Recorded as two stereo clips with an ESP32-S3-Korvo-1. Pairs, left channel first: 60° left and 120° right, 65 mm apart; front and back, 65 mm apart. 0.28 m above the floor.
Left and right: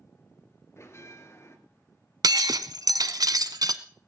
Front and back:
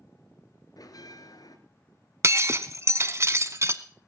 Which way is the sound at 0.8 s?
15° left.